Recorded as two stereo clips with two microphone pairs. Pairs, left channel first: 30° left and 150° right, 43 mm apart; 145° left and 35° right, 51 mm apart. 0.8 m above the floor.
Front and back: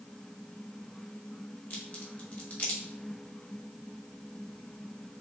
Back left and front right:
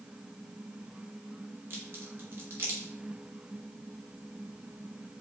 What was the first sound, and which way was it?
A crack, 10° right.